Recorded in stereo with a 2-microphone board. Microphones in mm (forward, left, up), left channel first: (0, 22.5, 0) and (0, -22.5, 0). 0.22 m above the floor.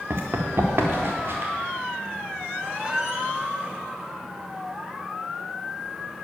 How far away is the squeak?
About 0.8 m.